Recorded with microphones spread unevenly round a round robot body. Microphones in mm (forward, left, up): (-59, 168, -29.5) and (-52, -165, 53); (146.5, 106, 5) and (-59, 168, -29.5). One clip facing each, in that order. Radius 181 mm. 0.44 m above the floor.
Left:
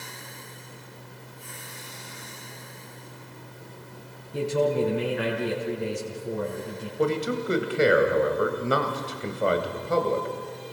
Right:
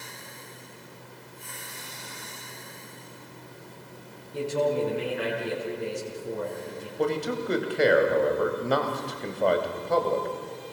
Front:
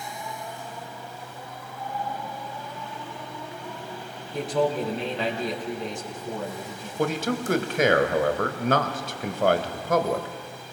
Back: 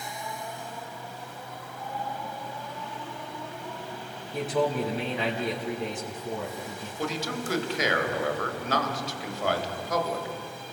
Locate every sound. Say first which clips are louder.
4.3 s a man speaking: left 2 dB, front 2 dB; 75° left, 5 m
7.0 s a man speaking: left 2 dB, front 6 dB; 20° left, 2.5 m